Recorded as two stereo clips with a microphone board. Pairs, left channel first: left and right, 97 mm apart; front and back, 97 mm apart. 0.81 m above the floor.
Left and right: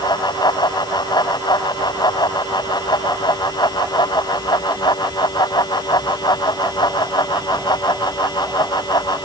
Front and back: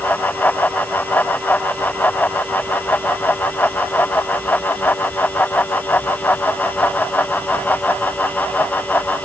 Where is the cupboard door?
I don't hear a cupboard door.